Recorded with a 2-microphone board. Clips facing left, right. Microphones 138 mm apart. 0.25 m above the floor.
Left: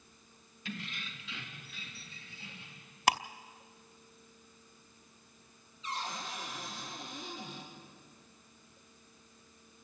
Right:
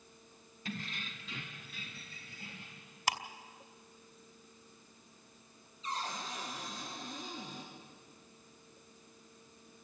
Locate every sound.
0.7 s keys jangling: 40° right (ahead or behind), 1.4 m; by 3.0 s 45° right (ahead or behind), 5 m
3.1 s ticking: 65° left (ahead or behind), 0.5 m
5.8 s a cupboard door: 35° right (ahead or behind), 5.5 m